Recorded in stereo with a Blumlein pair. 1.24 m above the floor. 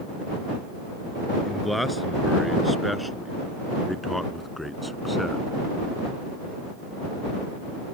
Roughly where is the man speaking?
Ahead.